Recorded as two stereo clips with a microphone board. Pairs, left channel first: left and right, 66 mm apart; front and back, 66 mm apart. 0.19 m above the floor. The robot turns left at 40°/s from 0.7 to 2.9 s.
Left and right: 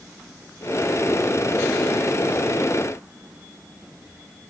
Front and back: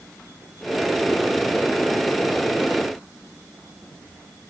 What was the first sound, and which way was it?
Only background noise.